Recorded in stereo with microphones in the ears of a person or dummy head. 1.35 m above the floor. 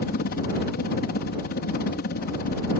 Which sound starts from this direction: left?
A helicopter, at 0.0 s.